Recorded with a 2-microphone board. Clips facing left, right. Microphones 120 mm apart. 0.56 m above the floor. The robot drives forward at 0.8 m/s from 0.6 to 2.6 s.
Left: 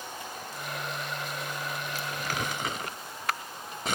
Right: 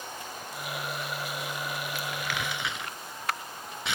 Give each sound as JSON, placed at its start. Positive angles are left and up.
{"t": 1.9, "sound": "crumpling", "side_deg": 40}